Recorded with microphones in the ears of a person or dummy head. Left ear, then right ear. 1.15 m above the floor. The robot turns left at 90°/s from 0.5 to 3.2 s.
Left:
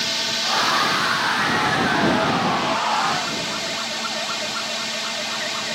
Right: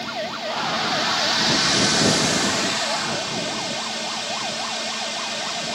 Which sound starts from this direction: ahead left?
A drone, at 0.0 s.